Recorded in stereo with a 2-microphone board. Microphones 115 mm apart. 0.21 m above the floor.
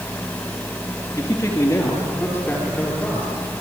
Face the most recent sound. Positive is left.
turn(degrees=10)  # may be behind; listen again after turning